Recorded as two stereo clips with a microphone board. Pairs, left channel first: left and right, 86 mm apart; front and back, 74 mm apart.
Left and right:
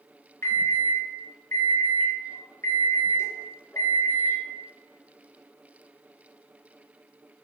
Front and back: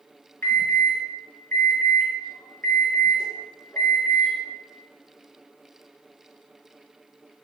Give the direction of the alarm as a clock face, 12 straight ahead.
11 o'clock.